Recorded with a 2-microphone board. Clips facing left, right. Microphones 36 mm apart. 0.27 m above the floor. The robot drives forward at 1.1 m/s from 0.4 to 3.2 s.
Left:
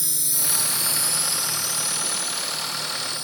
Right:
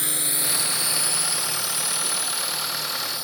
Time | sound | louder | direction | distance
0.0 | a drone | right 3 dB | 45° right (ahead or behind) | ?